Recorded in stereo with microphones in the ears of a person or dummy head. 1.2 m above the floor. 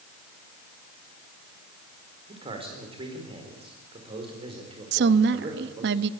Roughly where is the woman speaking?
Right.